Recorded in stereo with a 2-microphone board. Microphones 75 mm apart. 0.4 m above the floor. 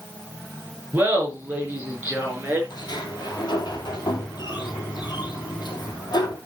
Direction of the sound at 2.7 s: 70° left (ahead or behind).